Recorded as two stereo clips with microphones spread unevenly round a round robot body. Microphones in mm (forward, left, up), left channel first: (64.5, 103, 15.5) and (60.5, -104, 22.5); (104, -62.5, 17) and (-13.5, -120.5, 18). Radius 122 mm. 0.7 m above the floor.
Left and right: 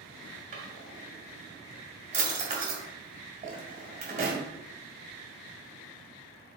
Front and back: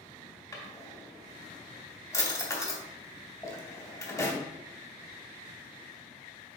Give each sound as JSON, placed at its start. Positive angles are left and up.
{"t": 0.5, "sound": "a drawer", "azimuth_deg": -40, "distance_m": 2.5}